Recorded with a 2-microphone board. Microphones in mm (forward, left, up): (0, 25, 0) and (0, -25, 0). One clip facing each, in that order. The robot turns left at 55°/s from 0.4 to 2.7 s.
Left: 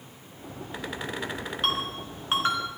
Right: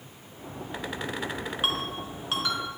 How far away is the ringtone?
About 2.5 m.